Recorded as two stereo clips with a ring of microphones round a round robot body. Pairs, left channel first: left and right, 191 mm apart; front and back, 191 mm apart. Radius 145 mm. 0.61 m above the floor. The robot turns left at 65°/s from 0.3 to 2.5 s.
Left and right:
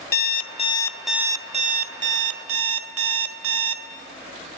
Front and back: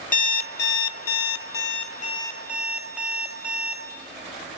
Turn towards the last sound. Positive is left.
turn(degrees=-95)